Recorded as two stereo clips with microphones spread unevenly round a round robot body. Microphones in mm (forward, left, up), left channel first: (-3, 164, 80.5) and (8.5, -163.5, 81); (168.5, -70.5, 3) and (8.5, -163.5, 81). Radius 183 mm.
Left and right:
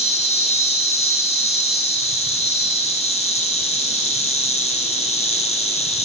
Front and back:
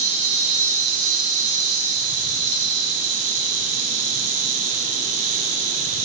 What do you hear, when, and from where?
0.0 s an insect: 165° left, 5 m